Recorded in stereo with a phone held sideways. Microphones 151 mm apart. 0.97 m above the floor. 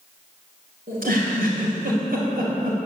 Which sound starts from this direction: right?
A giggle, at 0.9 s.